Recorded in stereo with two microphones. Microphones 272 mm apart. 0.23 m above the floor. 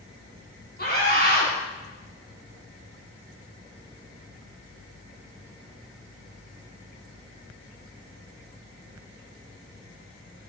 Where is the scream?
35° left (ahead or behind), 2.5 m.